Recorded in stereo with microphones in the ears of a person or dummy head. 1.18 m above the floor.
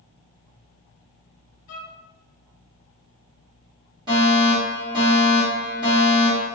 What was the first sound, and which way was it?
A violin, 40° left (ahead or behind).